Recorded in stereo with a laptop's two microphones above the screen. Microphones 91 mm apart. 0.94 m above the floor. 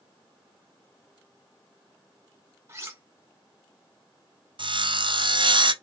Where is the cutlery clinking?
30° right (ahead or behind), 1.3 m.